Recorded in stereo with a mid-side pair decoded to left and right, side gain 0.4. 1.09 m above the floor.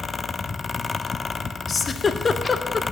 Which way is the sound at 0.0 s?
30° left.